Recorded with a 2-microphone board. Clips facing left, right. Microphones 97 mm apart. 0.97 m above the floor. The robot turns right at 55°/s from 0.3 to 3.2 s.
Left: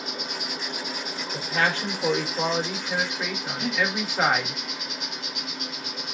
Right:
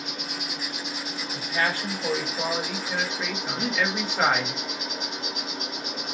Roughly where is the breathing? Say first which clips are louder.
Even; right.